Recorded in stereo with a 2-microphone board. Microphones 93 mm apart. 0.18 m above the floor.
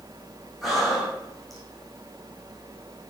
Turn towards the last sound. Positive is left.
turn(degrees=0)  # may be behind; listen again after turning